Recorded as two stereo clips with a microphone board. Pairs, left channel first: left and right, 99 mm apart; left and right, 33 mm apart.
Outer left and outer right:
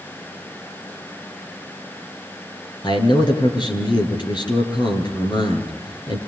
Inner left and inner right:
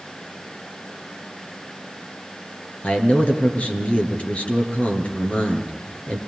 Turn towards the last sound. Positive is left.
turn(degrees=50)  # may be behind; listen again after turning